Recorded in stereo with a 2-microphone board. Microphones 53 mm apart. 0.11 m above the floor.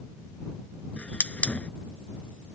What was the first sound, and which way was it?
A hiss, 25° left (ahead or behind).